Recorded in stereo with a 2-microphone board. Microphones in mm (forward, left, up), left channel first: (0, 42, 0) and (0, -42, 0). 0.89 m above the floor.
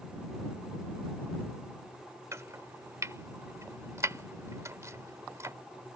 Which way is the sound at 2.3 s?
35° right (ahead or behind).